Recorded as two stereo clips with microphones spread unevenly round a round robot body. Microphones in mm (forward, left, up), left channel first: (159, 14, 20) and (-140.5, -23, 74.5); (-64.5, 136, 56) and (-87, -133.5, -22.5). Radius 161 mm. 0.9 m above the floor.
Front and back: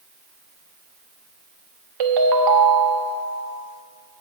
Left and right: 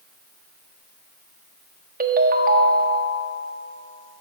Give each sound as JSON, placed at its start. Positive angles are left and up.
{"t": 2.0, "sound": "a ringtone", "azimuth_deg": -150, "distance_m": 1.2}